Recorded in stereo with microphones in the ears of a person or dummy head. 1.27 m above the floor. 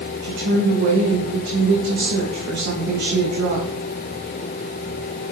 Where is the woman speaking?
55° right (ahead or behind), 1.6 m.